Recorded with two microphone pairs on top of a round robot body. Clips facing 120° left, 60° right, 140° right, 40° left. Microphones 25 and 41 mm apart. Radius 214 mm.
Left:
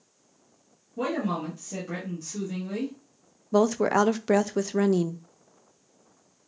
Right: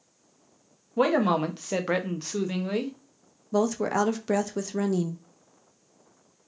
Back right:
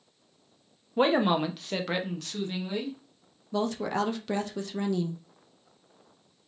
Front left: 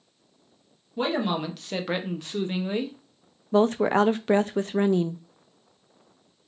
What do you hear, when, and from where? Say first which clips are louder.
1.0 s a man speaking: right 6 dB, back right 3 dB; 90° right, 0.8 m; by 3.0 s 5° right, 1.0 m
3.5 s a woman speaking: left 3 dB, front left 8 dB; 75° left, 0.5 m